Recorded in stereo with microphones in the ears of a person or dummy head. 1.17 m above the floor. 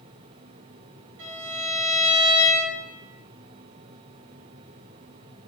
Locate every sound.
1.2 s a violin: 65° right (ahead or behind), 5.5 m